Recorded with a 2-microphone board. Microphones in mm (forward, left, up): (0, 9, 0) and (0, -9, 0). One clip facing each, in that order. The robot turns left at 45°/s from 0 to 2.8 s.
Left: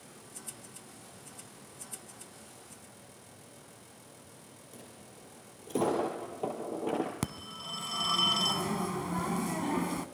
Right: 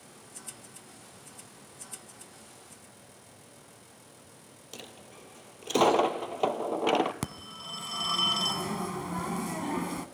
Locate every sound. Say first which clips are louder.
4.7 s a dropped coin: right 7 dB; 70° right (ahead or behind), 1.2 m
7.2 s a phone ringing: even; centre (ahead or behind), 0.8 m